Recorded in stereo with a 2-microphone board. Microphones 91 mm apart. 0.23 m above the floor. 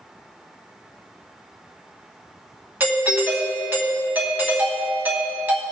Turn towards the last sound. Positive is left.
turn(degrees=-20)  # may be behind; listen again after turning